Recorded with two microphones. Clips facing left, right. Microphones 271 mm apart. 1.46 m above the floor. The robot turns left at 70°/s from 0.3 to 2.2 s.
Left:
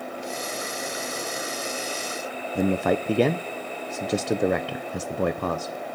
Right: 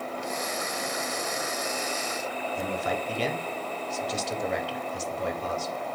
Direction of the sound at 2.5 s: 65° left (ahead or behind).